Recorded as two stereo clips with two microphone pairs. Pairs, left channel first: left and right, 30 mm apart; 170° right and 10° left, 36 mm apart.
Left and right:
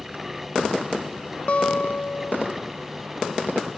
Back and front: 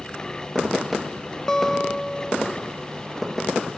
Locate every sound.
1.5 s a guitar: 120° left, 0.6 m